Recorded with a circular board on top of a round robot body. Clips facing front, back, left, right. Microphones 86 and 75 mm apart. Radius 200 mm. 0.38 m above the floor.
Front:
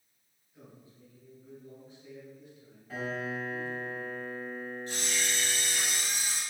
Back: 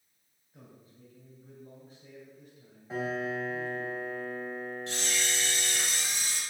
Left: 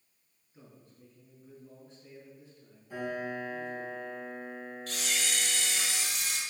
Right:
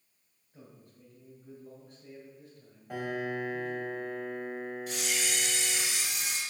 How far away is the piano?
About 3.5 m.